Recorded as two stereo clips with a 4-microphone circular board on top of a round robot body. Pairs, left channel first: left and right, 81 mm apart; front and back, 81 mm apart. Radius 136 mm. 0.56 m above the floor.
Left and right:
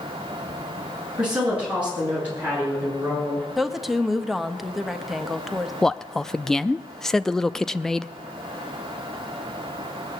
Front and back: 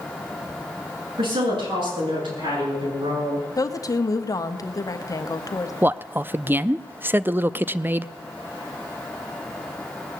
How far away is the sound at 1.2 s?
About 8 m.